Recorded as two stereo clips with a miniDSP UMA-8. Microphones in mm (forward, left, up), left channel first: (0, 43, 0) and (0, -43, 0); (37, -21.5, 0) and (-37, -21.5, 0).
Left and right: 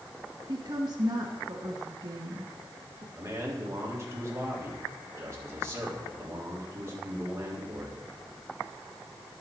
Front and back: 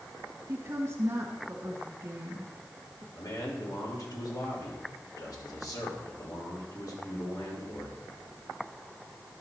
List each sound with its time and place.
0.5 s a woman speaking: 125° right, 2.0 m
3.1 s a man speaking: 35° right, 3 m